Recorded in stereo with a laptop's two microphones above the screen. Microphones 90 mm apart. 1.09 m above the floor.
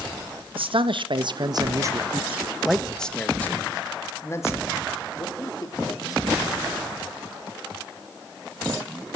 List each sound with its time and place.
0.6 s a man speaking: 75° right (ahead or behind), 1.5 m; by 6.4 s 40° left (ahead or behind), 3.5 m